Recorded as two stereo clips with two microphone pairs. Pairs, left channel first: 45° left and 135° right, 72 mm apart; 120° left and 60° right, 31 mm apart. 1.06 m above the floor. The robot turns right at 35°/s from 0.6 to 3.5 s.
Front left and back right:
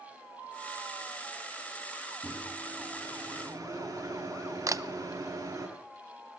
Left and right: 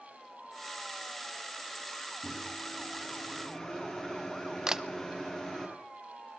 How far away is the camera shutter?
About 0.7 m.